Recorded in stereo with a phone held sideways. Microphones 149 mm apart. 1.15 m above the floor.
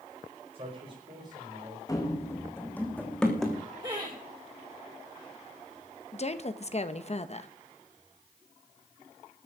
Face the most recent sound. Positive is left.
turn(degrees=45)  # may be behind; listen again after turning